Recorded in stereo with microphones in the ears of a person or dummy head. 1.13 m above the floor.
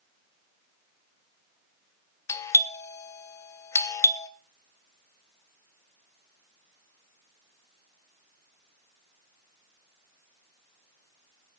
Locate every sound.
2.3 s a doorbell: 15° left (ahead or behind), 0.8 m